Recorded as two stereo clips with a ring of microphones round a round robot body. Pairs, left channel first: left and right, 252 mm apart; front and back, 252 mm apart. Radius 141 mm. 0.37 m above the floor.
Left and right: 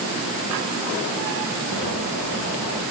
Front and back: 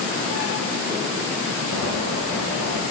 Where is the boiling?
150° right, 8.5 m.